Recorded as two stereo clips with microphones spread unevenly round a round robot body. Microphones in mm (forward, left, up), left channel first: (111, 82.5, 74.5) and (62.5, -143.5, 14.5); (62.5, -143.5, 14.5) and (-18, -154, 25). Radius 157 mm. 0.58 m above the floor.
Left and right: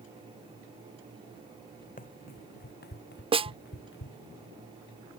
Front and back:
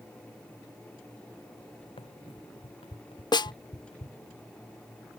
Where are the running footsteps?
30° left; by 4.3 s 50° left.